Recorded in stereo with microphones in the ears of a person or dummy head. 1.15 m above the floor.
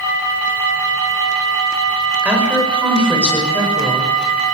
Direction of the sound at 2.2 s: 5° right (ahead or behind).